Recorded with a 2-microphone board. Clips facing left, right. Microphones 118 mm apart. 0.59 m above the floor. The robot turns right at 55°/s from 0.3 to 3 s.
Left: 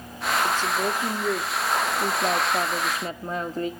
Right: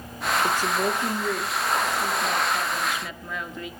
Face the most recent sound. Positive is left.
turn(degrees=115)